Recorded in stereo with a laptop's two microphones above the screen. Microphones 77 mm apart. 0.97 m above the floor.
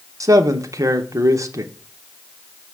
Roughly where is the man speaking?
Right.